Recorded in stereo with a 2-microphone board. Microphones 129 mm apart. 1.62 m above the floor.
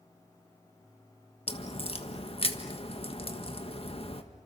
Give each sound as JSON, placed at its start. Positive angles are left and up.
{"t": 1.5, "sound": "a crack", "side_deg": 45, "distance_m": 1.7}